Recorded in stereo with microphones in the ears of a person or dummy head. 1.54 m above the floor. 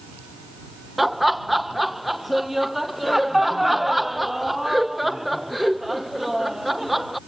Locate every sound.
1.0 s laughter: centre (ahead or behind)